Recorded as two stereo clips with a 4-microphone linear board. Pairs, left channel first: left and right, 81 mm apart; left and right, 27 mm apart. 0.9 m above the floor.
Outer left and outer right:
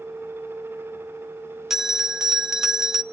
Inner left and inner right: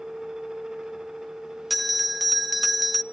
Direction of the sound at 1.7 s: 5° right (ahead or behind).